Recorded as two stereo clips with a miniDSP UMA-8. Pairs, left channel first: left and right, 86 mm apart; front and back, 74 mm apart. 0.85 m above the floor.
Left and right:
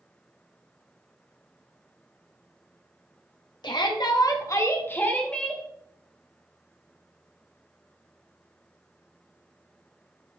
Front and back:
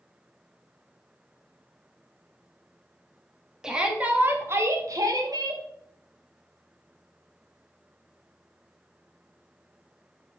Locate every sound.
3.6 s a shout: 100° left, 1.5 m; by 5.6 s 175° left, 1.6 m